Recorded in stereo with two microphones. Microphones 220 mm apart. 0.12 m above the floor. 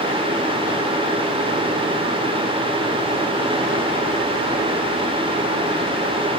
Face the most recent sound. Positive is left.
No sound to turn to.